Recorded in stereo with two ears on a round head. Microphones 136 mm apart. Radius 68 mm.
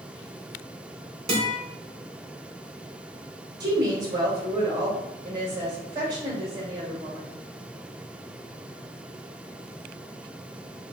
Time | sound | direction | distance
1.3 | a guitar | 40° right (ahead or behind) | 1.1 m
3.6 | a woman speaking | 30° right (ahead or behind) | 1.7 m